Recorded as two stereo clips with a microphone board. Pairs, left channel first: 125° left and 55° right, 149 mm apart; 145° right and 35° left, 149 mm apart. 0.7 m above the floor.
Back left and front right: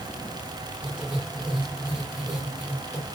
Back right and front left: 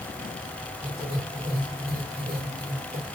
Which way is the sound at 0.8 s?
30° left.